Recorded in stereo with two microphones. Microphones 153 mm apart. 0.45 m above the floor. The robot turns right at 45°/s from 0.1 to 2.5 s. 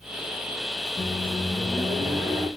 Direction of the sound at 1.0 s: 135° left.